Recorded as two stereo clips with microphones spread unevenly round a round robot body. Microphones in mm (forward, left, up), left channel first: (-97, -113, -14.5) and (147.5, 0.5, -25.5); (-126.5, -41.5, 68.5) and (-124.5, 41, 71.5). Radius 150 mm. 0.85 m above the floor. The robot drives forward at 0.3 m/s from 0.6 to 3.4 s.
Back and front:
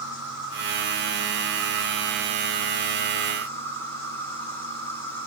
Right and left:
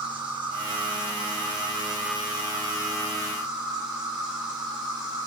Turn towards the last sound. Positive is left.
turn(degrees=125)